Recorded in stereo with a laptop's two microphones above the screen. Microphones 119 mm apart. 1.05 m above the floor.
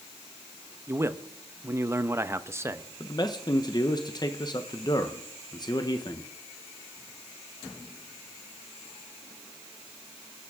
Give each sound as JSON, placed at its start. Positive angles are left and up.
{"t": 0.9, "sound": "a man speaking", "side_deg": -20, "distance_m": 0.9}
{"t": 3.0, "sound": "a man speaking", "side_deg": 35, "distance_m": 0.7}